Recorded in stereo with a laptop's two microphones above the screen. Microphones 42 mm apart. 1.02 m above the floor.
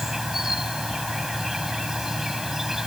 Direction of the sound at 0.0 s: 10° right (ahead or behind).